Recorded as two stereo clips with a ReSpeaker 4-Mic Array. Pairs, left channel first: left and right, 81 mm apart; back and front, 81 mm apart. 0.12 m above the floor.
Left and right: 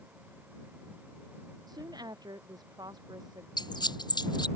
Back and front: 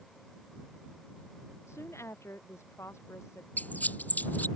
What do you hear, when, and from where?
1.7 s a woman speaking: 125° right
3.6 s a squeak: 110° left